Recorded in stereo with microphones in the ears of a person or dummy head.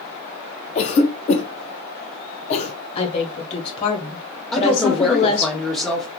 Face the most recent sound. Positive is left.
turn(degrees=5)  # may be behind; listen again after turning